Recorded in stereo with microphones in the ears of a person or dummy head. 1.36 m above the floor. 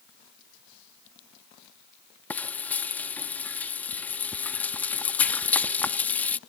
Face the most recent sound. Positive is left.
turn(degrees=0)  # may be behind; listen again after turning